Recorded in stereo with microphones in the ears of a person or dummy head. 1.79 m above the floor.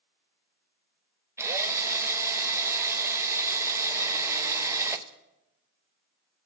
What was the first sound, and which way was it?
A drill, 10° right (ahead or behind).